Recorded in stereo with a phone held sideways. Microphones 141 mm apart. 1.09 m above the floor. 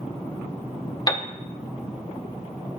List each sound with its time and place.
1.1 s a piano: 30° left (ahead or behind), 0.5 m